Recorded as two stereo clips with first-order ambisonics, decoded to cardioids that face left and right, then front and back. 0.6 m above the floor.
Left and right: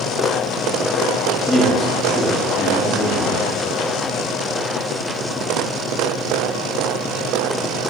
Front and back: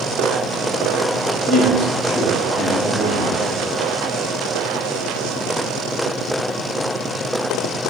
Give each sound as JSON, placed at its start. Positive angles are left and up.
{"t": 1.5, "sound": "a man speaking", "azimuth_deg": 45, "distance_m": 0.9}